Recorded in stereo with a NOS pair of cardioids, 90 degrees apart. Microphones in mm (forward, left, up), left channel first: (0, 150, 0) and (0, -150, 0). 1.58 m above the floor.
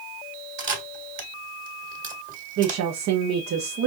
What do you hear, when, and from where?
0.6 s a camera shutter: 40° right, 1.6 m
2.6 s a woman speaking: 60° right, 0.9 m